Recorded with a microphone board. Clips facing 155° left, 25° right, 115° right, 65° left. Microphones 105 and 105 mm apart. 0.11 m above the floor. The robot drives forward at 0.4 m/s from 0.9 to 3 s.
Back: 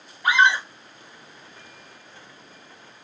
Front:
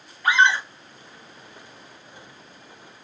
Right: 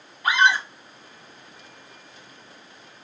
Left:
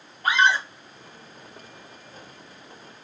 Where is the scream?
90° left, 1.7 m.